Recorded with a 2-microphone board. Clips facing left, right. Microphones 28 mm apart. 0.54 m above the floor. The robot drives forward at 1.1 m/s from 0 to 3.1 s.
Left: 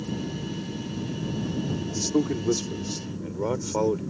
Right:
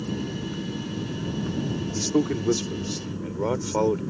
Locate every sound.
0.0 s an aircraft: 70° right (ahead or behind); by 4.1 s 75° right (ahead or behind)
1.9 s a man speaking: 25° right (ahead or behind); by 4.0 s 15° right (ahead or behind)